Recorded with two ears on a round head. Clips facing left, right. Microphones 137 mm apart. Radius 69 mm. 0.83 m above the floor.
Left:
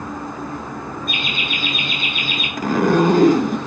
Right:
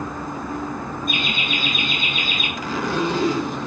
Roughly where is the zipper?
Left.